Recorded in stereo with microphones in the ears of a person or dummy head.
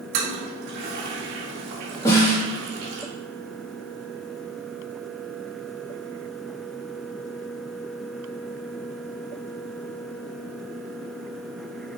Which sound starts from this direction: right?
A toilet flushing, at 0.1 s.